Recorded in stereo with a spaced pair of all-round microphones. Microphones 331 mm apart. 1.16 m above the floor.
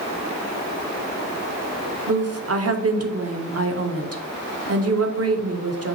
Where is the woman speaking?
50° right (ahead or behind), 0.6 m.